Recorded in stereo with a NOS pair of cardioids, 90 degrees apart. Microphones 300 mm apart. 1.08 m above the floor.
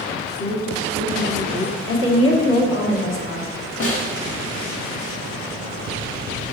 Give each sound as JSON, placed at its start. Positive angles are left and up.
{"t": 0.4, "sound": "a woman speaking", "azimuth_deg": 55, "distance_m": 2.5}
{"t": 1.9, "sound": "a woman speaking", "azimuth_deg": 45, "distance_m": 1.9}
{"t": 3.8, "sound": "a snare drum", "azimuth_deg": 50, "distance_m": 1.8}